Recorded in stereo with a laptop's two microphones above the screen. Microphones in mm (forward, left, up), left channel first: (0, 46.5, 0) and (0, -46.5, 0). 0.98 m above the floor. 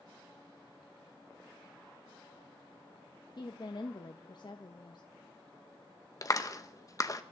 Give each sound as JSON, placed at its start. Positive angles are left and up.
{"t": 3.4, "sound": "a woman speaking", "side_deg": 50, "distance_m": 0.9}
{"t": 6.2, "sound": "a clap", "side_deg": 40, "distance_m": 0.7}